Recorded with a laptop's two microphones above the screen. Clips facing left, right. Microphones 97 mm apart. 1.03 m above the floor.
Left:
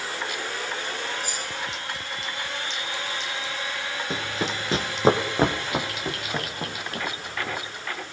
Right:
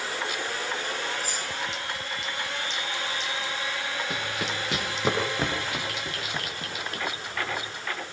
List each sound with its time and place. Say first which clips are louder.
1.2 s keys jangling: even; 40° right (ahead or behind), 9.5 m
4.1 s running footsteps: left 2 dB; 25° left (ahead or behind), 2.5 m; by 7.6 s 40° left (ahead or behind), 5 m